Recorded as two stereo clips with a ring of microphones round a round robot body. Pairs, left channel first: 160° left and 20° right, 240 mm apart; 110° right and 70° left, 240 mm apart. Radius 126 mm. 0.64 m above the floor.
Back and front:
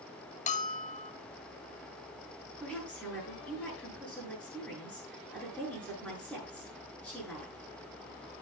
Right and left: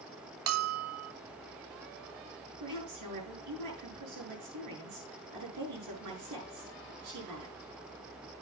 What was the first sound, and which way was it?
A bell, 95° left.